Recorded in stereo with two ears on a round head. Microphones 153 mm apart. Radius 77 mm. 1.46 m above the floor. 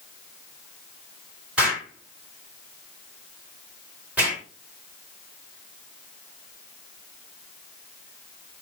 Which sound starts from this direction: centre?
An explosion, at 1.6 s.